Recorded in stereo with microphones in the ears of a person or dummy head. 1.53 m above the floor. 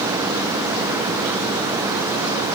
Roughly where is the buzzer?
No buzzer in this recording.